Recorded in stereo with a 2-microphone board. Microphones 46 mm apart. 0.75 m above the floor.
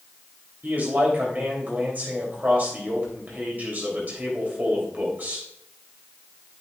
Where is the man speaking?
40° right (ahead or behind), 3.5 m.